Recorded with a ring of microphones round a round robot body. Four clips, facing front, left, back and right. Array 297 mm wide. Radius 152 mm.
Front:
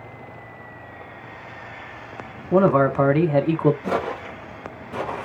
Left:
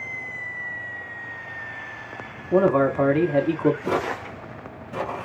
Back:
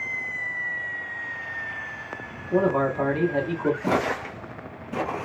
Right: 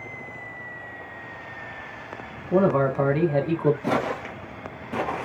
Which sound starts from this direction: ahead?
A man speaking, at 2.5 s.